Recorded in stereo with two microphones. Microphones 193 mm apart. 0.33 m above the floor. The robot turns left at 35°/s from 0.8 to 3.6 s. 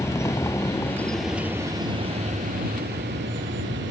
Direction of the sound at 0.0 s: 15° left.